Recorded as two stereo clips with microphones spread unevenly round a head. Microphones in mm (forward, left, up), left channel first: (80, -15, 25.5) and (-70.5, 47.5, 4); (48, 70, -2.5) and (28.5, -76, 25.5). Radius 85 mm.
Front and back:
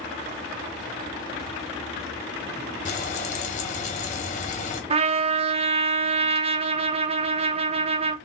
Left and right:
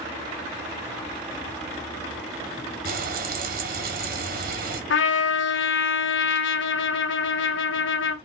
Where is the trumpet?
100° left, 0.5 m.